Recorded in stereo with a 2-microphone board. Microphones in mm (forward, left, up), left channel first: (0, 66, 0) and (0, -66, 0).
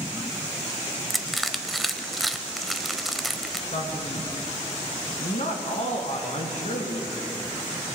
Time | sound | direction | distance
1.1 | crushing | centre (ahead or behind) | 0.6 m
3.7 | a man speaking | 60° left (ahead or behind) | 2.5 m